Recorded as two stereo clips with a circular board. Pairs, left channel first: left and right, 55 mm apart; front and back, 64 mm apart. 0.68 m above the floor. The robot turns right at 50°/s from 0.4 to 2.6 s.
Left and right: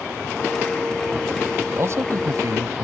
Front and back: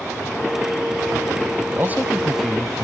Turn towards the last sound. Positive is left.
turn(degrees=-85)